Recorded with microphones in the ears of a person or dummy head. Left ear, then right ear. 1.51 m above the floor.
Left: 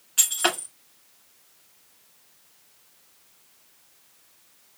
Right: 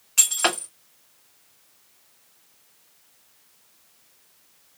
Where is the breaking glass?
30° right (ahead or behind), 1.9 m.